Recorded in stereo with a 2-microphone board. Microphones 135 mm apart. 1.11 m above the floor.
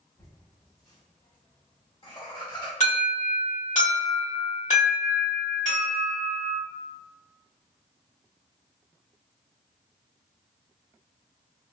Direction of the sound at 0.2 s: 20° left (ahead or behind).